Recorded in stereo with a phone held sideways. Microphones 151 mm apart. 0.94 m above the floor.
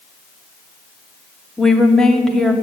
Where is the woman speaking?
5° left (ahead or behind), 1.6 m.